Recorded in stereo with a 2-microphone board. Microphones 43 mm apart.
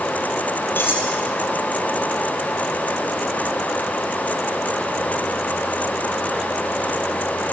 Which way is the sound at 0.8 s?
55° left (ahead or behind).